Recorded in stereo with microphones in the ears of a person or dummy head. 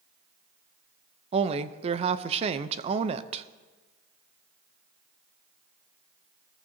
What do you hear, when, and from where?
1.3 s a woman speaking: 30° right (ahead or behind), 0.6 m